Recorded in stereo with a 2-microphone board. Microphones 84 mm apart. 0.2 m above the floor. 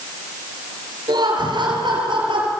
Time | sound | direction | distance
1.1 | laughter | 55° right (ahead or behind) | 4 m